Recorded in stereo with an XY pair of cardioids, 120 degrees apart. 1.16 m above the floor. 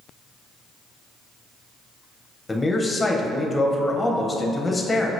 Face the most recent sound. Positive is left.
turn(degrees=15)